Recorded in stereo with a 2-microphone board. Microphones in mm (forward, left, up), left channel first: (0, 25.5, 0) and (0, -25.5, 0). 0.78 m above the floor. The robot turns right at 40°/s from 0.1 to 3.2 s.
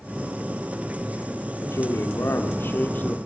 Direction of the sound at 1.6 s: 80° left.